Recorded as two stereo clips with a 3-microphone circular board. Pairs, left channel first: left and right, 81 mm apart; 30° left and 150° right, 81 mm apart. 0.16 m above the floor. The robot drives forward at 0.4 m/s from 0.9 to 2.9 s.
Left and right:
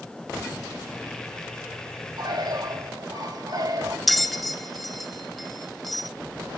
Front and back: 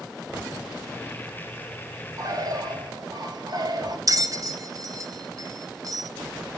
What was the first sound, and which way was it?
A bird, 110° right.